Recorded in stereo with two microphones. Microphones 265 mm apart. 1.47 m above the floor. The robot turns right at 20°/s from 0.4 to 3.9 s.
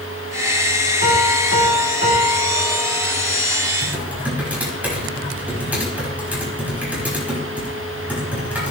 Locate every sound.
1.0 s a piano: 80° left, 2.5 m; by 3.3 s 125° left, 2.5 m
3.8 s typing on a keyboard: 10° right (ahead or behind), 4.5 m; by 8.7 s 5° right (ahead or behind), 4.5 m